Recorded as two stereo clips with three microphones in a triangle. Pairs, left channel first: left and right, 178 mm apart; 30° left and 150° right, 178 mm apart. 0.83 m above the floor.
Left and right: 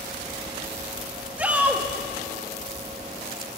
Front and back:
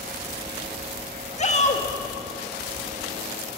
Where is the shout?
10° right, 1.6 m.